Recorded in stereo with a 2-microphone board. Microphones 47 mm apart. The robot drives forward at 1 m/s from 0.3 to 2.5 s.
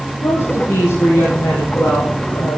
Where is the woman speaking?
80° left, 7.5 m; by 2.6 s 70° left (ahead or behind), 7.5 m.